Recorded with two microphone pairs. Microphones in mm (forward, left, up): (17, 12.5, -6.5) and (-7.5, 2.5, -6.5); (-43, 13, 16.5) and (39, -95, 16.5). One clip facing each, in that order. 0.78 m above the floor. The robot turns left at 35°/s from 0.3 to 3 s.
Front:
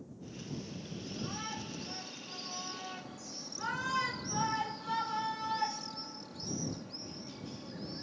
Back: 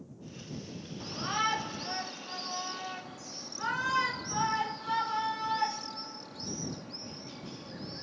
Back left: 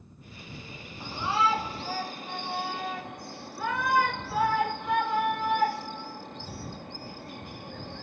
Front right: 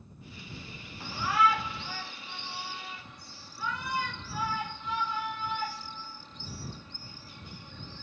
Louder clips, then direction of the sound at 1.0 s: Back 11 dB, even; 160° right.